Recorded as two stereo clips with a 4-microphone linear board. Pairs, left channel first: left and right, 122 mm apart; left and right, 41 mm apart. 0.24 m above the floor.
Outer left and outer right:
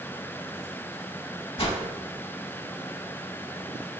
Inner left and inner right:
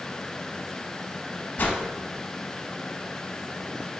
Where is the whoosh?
50° left (ahead or behind), 0.6 m.